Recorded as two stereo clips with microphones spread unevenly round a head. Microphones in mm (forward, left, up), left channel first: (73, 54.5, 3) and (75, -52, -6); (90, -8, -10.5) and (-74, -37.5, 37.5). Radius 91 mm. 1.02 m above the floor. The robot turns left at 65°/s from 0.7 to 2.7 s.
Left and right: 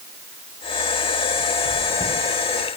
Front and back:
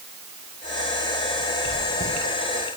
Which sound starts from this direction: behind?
Chewing, at 1.6 s.